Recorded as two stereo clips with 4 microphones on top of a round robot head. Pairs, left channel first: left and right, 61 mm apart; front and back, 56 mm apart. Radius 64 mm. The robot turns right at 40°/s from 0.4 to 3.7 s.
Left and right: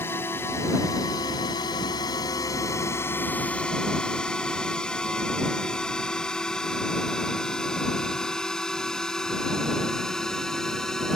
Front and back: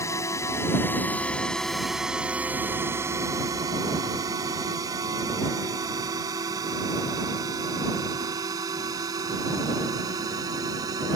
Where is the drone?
30° left; by 11.2 s 170° left.